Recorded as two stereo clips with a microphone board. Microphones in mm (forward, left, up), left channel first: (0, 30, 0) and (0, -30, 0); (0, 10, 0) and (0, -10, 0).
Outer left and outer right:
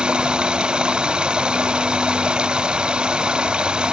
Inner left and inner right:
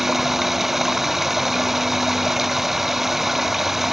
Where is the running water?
15° right (ahead or behind).